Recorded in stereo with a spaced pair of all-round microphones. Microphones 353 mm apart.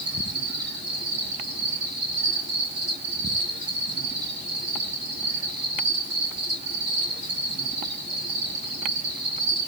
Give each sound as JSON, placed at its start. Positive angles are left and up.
{"t": 0.0, "sound": "an insect", "side_deg": 20, "distance_m": 3.0}